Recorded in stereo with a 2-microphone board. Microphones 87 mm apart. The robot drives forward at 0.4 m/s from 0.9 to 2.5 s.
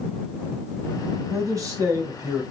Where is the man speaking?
35° right (ahead or behind), 1.3 m.